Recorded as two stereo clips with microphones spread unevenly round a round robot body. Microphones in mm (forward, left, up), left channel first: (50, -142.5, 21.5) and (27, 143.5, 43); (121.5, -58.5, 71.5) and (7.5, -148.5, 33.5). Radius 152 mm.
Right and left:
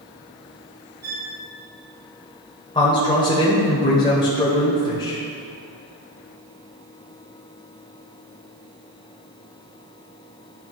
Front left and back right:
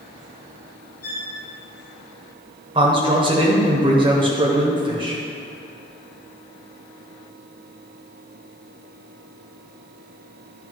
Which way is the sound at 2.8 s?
150° right.